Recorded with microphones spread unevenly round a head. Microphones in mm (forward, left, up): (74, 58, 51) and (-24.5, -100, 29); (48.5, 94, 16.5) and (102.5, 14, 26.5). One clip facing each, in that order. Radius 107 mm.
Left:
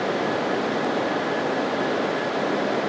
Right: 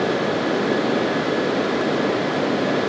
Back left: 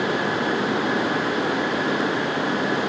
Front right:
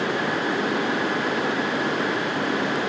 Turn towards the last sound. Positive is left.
No sound to turn to.